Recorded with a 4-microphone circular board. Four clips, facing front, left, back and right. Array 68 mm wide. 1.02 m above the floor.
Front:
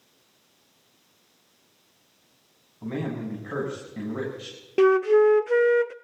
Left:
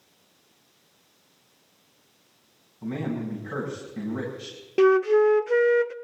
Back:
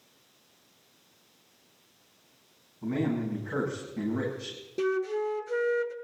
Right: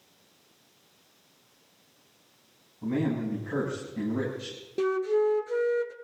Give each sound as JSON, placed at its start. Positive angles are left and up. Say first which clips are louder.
{"t": 2.8, "sound": "a man speaking", "louder": "right 2 dB, back 2 dB", "azimuth_deg": 20, "distance_m": 9.0}
{"t": 4.8, "sound": "a flute", "louder": "left 7 dB, front 11 dB", "azimuth_deg": 35, "distance_m": 0.5}